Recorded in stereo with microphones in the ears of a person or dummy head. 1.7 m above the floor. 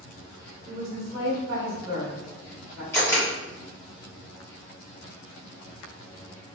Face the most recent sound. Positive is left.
turn(degrees=20)  # may be behind; listen again after turning